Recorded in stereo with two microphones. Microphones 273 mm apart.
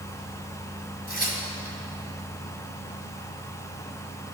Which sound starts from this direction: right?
Tearing paper, at 1.1 s.